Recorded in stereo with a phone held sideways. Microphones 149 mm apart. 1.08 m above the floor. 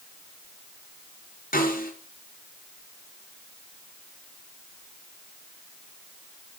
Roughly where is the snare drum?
Left.